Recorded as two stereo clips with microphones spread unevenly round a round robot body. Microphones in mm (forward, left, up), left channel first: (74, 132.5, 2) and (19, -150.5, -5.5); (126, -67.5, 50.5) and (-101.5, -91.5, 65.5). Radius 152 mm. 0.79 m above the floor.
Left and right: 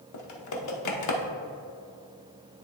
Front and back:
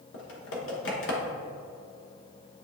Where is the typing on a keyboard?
50° left, 0.9 m.